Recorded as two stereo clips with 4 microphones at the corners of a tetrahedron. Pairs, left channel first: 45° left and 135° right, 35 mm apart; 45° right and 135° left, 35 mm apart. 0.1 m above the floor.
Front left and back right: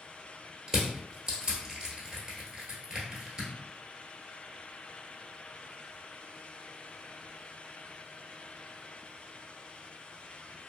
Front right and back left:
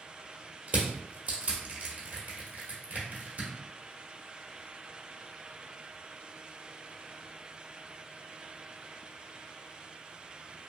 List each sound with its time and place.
0.7 s crushing: 160° left, 1.0 m